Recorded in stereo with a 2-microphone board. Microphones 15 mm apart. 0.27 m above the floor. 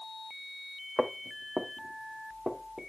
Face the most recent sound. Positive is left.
turn(degrees=-80)